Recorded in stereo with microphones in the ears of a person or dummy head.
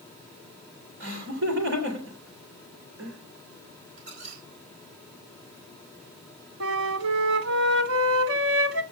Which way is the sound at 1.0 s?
75° right (ahead or behind).